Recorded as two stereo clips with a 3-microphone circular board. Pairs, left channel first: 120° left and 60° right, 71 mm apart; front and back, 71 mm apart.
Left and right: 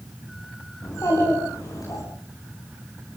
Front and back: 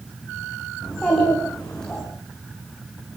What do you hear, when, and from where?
0.8 s a child speaking: 80° left, 8.5 m